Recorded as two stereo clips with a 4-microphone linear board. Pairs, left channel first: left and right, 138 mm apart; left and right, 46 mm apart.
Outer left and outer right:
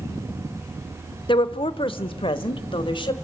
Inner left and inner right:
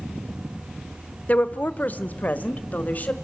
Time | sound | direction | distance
1.3 | a woman speaking | 35° left (ahead or behind) | 0.8 m